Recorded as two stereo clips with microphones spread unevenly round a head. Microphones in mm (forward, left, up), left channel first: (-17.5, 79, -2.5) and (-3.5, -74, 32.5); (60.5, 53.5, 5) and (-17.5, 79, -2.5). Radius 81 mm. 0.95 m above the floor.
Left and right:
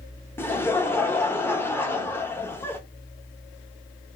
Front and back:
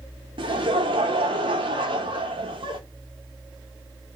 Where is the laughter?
165° left, 0.7 m.